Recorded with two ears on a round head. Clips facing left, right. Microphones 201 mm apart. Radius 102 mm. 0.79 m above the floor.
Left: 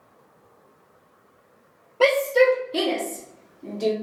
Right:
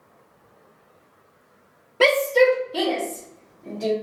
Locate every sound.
2.0 s a shout: 25° right (ahead or behind), 0.5 m; by 3.9 s 60° left (ahead or behind), 1.3 m